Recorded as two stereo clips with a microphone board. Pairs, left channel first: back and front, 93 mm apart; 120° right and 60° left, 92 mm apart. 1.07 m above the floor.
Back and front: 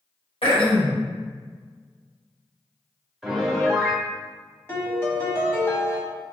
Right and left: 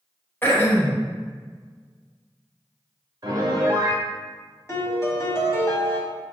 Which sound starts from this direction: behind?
Throat clearing, at 0.4 s.